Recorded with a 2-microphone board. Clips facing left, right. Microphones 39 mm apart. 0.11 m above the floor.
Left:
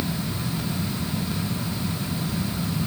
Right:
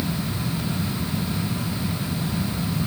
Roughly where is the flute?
No flute in this recording.